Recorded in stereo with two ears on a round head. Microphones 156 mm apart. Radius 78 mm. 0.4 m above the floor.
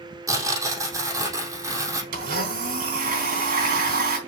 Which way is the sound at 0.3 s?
20° right (ahead or behind).